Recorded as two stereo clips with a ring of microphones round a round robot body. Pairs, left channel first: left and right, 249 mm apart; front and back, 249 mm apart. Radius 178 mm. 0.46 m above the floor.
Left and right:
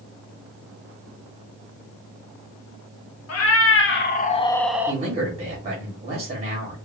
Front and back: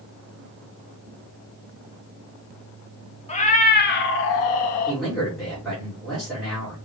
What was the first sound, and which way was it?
A cat meowing, 65° left.